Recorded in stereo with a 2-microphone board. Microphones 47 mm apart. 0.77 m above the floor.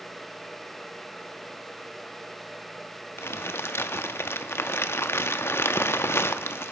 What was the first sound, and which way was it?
Crumpling, 60° left (ahead or behind).